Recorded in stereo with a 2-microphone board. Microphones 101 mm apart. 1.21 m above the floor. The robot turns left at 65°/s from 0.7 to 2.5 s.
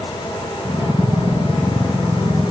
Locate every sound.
Only background noise.